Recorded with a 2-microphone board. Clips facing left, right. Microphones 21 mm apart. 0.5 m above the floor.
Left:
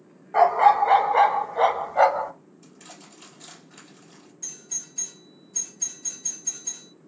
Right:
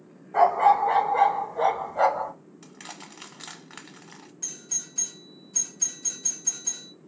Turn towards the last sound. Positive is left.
turn(degrees=-30)  # may be behind; listen again after turning